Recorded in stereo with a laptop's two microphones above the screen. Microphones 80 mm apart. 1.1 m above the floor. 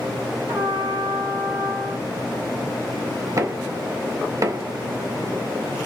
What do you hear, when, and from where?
0.5 s a trumpet: 40° right (ahead or behind), 1.4 m
3.4 s knocking: 45° right (ahead or behind), 0.6 m